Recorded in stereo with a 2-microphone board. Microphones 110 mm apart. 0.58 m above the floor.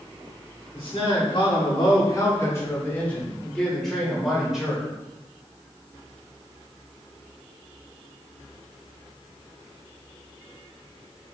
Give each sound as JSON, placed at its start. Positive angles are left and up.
{"t": 0.7, "sound": "a man speaking", "side_deg": 55, "distance_m": 1.2}